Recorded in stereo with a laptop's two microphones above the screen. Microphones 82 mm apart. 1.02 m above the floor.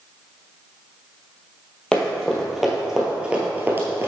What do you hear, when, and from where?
1.9 s running footsteps: 10° left (ahead or behind), 1.8 m; by 4.1 s 30° right (ahead or behind), 1.3 m